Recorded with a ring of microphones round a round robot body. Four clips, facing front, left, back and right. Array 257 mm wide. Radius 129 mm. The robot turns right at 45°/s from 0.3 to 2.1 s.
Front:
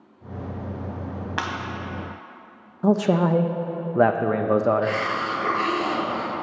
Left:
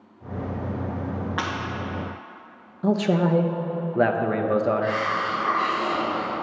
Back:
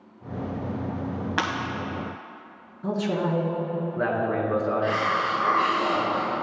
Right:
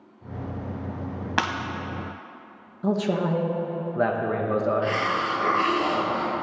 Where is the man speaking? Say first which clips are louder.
Left 3 dB, front 6 dB; 15° left, 0.7 m.